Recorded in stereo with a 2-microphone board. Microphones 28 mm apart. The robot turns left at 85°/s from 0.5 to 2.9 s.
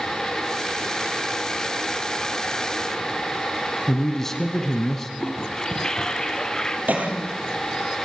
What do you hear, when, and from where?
3.9 s a man speaking: 10° left (ahead or behind), 1.2 m
5.2 s a toilet flushing: 20° left (ahead or behind), 1.2 m
6.9 s a cough: 75° right (ahead or behind), 4.5 m